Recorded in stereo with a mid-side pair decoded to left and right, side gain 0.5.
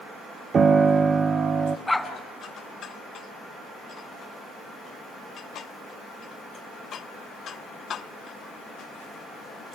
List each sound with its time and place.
0.5 s a piano: 40° right, 0.9 m
1.9 s a dog barking: 15° left, 3 m